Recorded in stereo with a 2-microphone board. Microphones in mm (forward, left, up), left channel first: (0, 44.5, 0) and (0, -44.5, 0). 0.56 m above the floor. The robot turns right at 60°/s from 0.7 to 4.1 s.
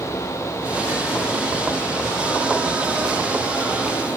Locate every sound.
Only background noise.